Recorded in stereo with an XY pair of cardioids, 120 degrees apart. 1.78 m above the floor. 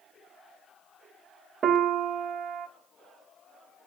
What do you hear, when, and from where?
1.6 s a piano: 45° right, 0.9 m